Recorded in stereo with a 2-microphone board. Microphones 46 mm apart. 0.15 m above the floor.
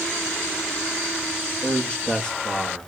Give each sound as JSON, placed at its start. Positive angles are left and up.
{"t": 1.6, "sound": "a man speaking", "side_deg": 20, "distance_m": 3.0}